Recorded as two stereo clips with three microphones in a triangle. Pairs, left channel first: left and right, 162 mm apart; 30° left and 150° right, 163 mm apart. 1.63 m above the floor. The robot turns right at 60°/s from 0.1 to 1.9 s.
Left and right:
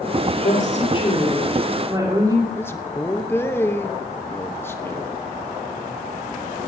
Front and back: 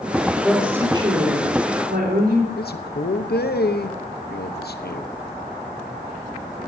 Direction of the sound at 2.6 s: 15° left.